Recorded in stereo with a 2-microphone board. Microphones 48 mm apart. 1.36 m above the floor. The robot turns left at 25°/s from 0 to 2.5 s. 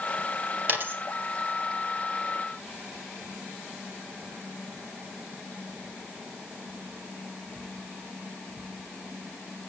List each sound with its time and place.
0.7 s a dropped coin: 40° right (ahead or behind), 2 m; by 1.0 s 45° right (ahead or behind), 2 m